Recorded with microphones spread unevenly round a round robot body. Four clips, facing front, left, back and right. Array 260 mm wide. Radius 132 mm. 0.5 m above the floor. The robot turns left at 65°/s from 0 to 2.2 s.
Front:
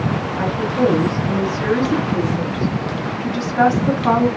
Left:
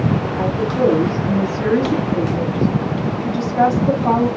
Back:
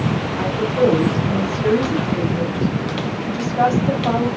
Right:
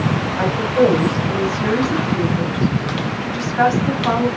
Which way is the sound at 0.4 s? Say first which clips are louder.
Right 3 dB, back 1 dB; 120° left.